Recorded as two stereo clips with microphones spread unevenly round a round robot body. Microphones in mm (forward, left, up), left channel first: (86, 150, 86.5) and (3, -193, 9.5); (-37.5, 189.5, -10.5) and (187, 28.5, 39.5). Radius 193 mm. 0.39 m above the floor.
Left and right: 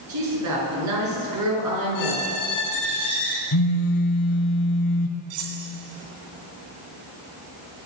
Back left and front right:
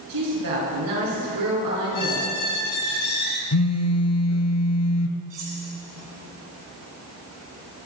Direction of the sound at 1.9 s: 140° left.